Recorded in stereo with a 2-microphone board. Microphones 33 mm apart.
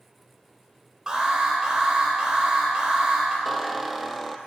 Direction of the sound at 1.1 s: 25° right (ahead or behind).